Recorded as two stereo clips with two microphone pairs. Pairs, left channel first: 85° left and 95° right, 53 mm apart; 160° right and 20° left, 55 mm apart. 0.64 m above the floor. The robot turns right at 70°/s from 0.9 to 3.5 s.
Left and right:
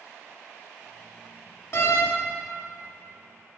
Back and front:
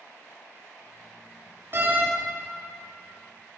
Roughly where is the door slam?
Ahead left.